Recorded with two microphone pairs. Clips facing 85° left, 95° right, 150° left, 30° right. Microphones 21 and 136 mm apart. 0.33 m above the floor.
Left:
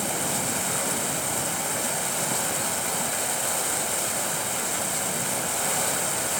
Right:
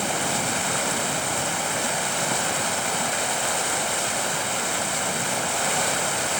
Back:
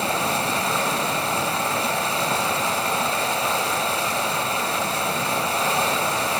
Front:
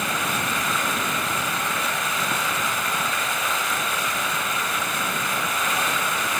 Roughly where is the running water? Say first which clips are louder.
Right 3 dB, back 3 dB; behind.